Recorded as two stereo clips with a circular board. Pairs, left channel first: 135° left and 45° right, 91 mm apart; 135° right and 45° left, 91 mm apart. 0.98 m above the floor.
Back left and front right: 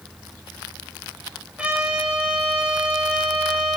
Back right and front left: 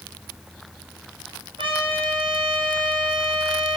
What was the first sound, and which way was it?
A trumpet, 30° left.